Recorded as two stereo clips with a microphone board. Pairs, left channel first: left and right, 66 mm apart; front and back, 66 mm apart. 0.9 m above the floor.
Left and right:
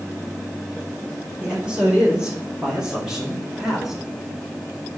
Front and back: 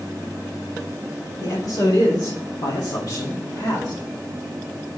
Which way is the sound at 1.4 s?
15° right.